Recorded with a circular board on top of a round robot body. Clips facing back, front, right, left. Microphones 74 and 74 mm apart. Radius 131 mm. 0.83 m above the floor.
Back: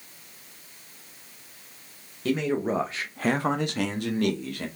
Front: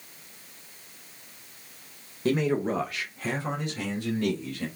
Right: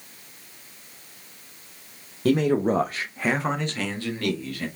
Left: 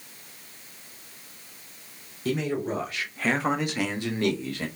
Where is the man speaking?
70° right, 1.0 m; by 4.7 s 155° left, 2 m.